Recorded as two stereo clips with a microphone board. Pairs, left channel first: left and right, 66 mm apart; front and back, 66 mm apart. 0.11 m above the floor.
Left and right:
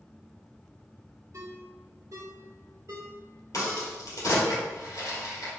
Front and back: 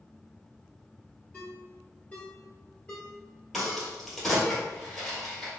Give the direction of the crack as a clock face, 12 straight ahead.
9 o'clock.